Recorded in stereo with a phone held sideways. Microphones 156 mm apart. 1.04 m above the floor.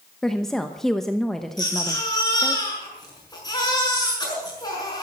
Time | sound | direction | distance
0.2 | a woman speaking | 5° left (ahead or behind) | 1.0 m
1.6 | a baby crying | 25° left (ahead or behind) | 6 m